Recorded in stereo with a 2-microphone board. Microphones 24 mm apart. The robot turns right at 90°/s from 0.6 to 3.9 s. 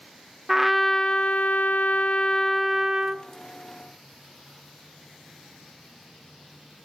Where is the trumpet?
10° right, 0.5 m; by 3.3 s 130° right, 0.5 m.